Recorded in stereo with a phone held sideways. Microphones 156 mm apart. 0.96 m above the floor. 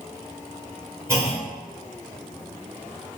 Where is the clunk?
20° right (ahead or behind), 1.2 m.